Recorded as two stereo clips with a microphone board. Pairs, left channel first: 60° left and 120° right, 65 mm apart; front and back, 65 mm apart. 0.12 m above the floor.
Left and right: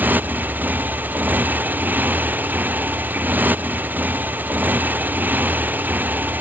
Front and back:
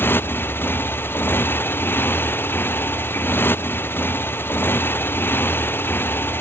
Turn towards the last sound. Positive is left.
turn(degrees=-60)